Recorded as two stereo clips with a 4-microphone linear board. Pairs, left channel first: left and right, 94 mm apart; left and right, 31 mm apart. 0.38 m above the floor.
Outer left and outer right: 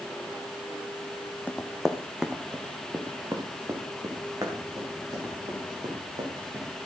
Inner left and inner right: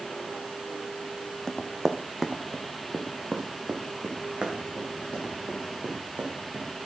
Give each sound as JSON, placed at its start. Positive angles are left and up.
{"t": 1.5, "sound": "running footsteps", "side_deg": 15, "distance_m": 1.4}